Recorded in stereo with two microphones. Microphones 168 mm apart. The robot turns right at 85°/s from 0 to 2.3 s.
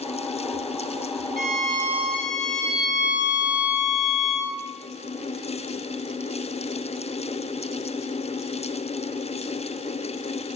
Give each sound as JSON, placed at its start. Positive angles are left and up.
{"t": 1.4, "sound": "a violin", "azimuth_deg": -60, "distance_m": 0.6}